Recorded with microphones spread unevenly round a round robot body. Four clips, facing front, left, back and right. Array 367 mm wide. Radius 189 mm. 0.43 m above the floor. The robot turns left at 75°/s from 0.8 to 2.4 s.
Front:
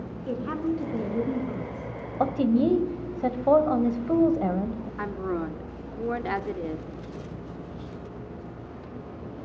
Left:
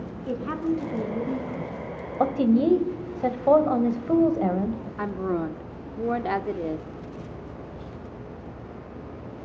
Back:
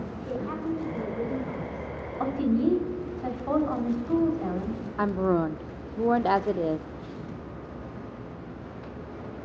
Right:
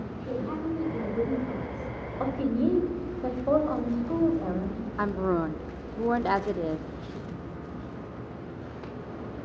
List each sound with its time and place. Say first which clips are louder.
0.3 s a woman speaking: left 4 dB, front 3 dB; 50° left, 4.5 m; by 1.9 s 35° right, 4.5 m
2.2 s a woman speaking: left 6 dB, front 2 dB; 60° left, 2 m; by 4.8 s 45° left, 2 m
5.0 s a woman speaking: right 1 dB, back 6 dB; 160° left, 0.8 m